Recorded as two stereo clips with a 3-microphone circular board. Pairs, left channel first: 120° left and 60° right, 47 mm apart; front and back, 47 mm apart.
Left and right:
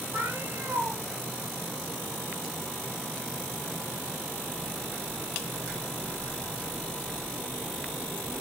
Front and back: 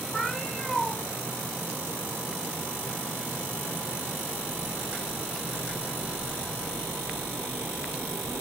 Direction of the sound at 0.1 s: 75° right.